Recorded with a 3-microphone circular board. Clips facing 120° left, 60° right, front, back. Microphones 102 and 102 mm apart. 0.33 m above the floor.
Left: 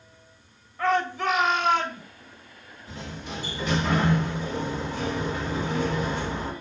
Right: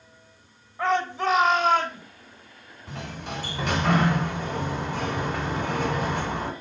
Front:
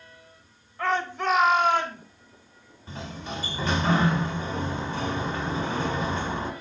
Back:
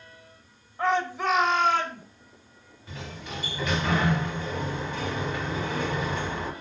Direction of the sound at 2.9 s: 55° right.